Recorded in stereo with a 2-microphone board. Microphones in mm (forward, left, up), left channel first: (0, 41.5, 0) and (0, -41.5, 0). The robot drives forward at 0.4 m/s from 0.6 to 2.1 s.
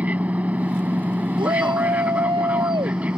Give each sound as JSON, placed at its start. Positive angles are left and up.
{"t": 0.0, "sound": "an aircraft", "side_deg": -15}
{"t": 1.4, "sound": "a shout", "side_deg": -75}